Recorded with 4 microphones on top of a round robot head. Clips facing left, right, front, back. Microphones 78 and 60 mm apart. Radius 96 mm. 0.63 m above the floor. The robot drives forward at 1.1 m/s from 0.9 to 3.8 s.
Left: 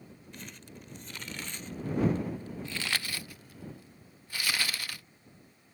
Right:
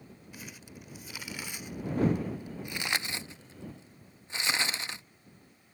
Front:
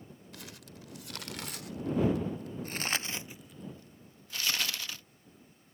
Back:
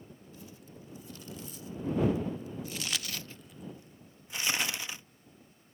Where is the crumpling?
5° right; by 5.0 s 130° right.